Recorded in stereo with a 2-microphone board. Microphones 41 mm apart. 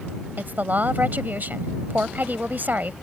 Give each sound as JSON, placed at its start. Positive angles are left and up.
{"t": 0.4, "sound": "a woman speaking", "side_deg": -50}